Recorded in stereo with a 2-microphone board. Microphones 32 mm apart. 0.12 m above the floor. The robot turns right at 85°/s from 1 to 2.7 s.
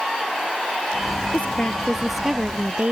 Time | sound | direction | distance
1.3 | a woman speaking | 115° left | ?